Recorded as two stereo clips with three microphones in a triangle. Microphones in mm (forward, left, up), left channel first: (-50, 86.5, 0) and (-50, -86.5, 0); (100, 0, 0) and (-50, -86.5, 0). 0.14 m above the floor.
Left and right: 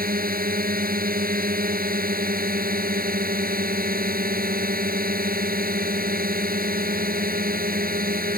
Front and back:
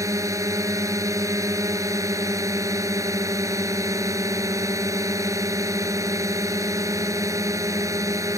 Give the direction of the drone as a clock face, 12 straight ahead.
3 o'clock.